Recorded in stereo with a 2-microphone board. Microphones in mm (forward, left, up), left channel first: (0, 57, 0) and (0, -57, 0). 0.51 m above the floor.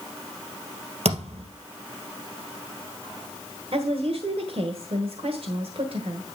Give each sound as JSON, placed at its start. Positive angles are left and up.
{"t": 1.1, "sound": "a thud", "side_deg": -60, "distance_m": 2.0}
{"t": 3.7, "sound": "a woman speaking", "side_deg": -60, "distance_m": 1.5}